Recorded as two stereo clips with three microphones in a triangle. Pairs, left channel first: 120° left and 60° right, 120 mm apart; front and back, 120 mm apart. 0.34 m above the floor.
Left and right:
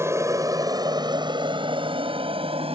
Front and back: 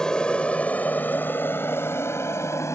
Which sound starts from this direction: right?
An aircraft, at 0.0 s.